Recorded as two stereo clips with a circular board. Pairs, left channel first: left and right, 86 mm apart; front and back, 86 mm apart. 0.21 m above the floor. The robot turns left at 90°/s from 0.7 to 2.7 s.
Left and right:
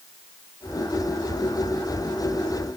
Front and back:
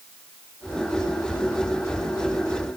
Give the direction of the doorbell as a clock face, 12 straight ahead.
I don't hear a doorbell.